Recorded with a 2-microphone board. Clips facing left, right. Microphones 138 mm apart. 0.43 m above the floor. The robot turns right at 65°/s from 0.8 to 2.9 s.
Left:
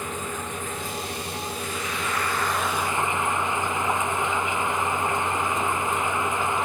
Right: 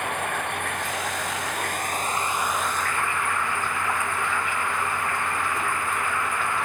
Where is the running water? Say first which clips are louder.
Right 3 dB; 120° right; by 6.7 s 20° left.